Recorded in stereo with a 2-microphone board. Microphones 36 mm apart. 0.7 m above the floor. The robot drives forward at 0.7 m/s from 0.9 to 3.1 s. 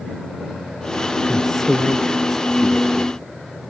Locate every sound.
1.2 s a man speaking: 5° left (ahead or behind)